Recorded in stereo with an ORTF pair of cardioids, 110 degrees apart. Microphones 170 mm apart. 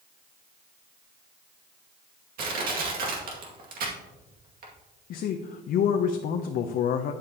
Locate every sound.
2.4 s crushing: 60° right, 2 m
5.1 s a man speaking: 60° left, 0.7 m